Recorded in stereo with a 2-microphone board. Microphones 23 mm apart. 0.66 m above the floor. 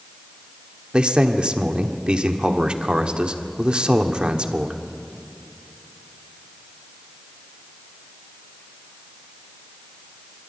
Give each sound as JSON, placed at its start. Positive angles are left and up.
{"t": 0.9, "sound": "a man speaking", "side_deg": -40, "distance_m": 1.3}